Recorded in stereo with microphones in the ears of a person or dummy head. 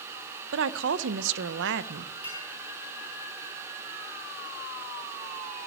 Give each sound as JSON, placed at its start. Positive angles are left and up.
{"t": 0.5, "sound": "a woman speaking", "side_deg": -70, "distance_m": 0.7}
{"t": 2.2, "sound": "a clink", "side_deg": -30, "distance_m": 6.5}